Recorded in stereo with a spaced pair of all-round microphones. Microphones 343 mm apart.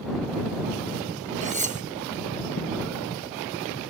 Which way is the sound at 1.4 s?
20° right (ahead or behind).